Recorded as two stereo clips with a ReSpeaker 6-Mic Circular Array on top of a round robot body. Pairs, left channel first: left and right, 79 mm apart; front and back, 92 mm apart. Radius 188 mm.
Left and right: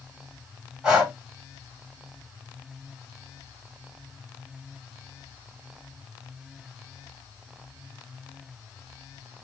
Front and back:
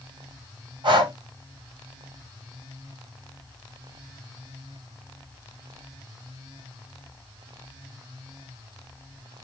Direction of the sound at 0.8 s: 170° right.